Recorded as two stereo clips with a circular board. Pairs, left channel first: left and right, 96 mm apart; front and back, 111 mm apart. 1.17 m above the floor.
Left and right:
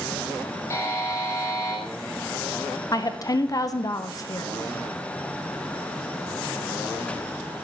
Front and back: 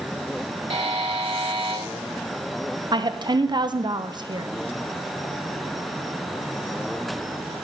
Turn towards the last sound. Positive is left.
turn(degrees=135)